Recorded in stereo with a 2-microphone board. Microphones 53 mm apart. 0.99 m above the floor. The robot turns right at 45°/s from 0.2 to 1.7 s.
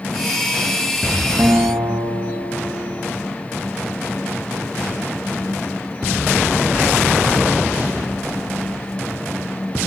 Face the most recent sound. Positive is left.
turn(degrees=-70)  # may be behind; listen again after turning